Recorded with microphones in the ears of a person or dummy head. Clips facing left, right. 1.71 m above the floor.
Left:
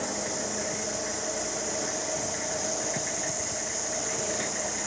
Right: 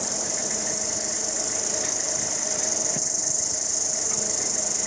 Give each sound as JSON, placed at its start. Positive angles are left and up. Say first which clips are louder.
{"t": 0.0, "sound": "an insect", "louder": "left 1 dB", "side_deg": -75, "distance_m": 4.0}